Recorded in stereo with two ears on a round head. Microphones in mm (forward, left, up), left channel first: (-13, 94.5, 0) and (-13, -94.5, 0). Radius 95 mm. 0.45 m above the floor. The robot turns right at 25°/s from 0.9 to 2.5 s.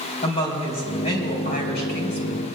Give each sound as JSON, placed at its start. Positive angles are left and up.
{"t": 0.2, "sound": "a woman speaking", "azimuth_deg": 35, "distance_m": 3.5}